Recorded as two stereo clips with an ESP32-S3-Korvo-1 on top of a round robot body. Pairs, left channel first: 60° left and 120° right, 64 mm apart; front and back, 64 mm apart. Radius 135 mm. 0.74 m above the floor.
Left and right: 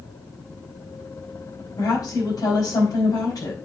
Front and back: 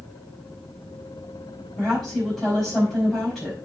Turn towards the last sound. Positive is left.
turn(degrees=90)